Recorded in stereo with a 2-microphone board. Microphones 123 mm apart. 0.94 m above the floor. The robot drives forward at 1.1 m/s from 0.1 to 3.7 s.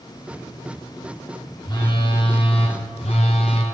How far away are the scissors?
No scissors in this recording.